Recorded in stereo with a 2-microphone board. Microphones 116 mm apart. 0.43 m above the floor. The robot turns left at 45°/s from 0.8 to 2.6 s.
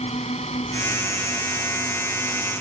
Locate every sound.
0.0 s a drone: 80° left; by 2.6 s 5° right